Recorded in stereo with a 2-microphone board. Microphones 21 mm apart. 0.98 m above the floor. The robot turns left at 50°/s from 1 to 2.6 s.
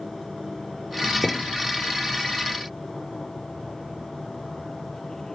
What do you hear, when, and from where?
1.2 s a thud: 65° left (ahead or behind); by 1.6 s 80° left